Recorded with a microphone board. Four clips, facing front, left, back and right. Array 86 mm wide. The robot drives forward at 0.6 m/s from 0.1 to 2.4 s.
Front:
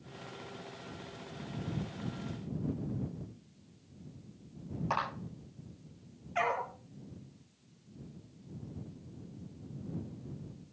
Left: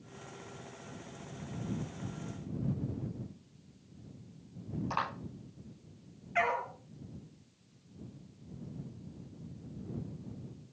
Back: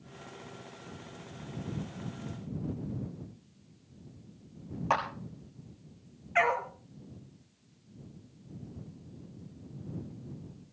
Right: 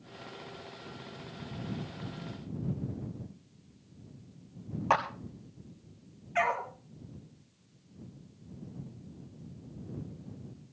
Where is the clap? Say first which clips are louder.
Right 8 dB, back 5 dB; 115° right, 6 m.